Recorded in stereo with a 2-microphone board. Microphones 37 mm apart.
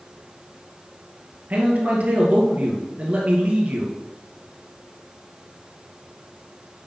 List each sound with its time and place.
1.5 s a man speaking: 40° right (ahead or behind), 2.5 m